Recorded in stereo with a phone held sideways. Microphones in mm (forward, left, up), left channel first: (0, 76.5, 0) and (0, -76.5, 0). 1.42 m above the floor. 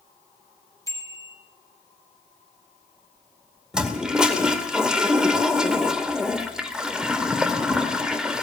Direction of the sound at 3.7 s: 5° right (ahead or behind).